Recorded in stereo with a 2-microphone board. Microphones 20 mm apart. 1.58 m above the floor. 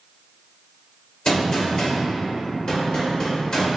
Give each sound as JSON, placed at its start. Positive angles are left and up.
{"t": 1.2, "sound": "a gunshot", "side_deg": 40, "distance_m": 2.0}